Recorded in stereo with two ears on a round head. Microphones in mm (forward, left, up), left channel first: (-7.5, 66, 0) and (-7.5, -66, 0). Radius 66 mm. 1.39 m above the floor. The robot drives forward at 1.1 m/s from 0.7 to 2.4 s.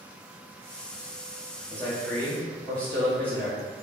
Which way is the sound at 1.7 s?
15° left (ahead or behind).